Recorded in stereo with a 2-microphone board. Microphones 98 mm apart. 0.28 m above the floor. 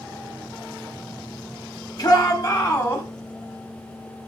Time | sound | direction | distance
2.0 | a shout | 50° left (ahead or behind) | 1.9 m